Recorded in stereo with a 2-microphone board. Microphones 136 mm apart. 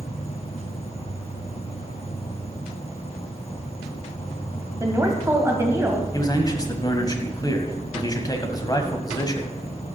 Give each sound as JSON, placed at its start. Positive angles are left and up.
{"t": 0.0, "sound": "an insect", "side_deg": 50, "distance_m": 1.2}
{"t": 4.8, "sound": "a woman speaking", "side_deg": -20, "distance_m": 1.7}
{"t": 6.1, "sound": "a man speaking", "side_deg": 30, "distance_m": 1.5}